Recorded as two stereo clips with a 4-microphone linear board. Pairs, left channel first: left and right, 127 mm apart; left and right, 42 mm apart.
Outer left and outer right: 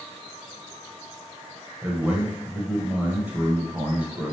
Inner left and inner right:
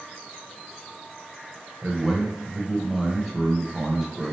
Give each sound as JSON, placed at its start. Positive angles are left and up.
{"t": 1.8, "sound": "a man speaking", "side_deg": -10, "distance_m": 0.9}